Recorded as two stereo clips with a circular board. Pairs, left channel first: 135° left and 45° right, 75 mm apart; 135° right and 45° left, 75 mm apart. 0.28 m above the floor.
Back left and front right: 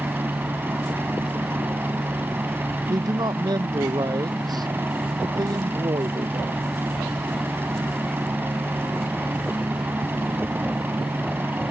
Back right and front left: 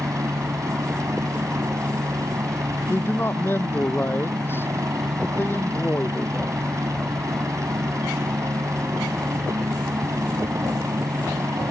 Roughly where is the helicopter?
Ahead.